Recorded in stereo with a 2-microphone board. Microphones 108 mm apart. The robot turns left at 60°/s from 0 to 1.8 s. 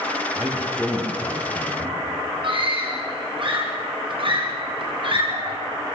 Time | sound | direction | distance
0.3 | a man speaking | 160° right | 7.5 m
2.4 | a scream | 55° right (ahead or behind) | 6.5 m